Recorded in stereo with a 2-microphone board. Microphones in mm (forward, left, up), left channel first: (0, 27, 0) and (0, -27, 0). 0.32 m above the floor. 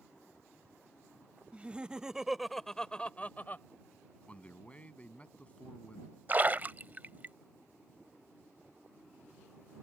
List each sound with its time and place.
1.5 s laughter: 25° right (ahead or behind); by 3.7 s 40° left (ahead or behind)
4.3 s a man speaking: 25° left (ahead or behind)
6.3 s a splash: 35° right (ahead or behind)